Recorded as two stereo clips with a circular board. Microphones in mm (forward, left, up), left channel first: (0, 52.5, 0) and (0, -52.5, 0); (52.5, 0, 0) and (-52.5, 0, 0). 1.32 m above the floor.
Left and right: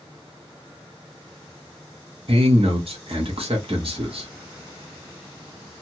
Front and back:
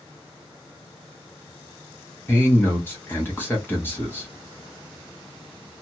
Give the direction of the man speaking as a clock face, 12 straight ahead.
2 o'clock.